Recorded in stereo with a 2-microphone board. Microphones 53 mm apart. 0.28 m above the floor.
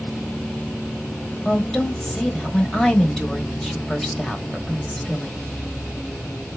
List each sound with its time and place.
1.4 s a woman speaking: 10° left (ahead or behind), 0.9 m